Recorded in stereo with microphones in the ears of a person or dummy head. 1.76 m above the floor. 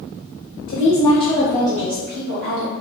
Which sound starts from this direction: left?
A woman speaking, at 0.7 s.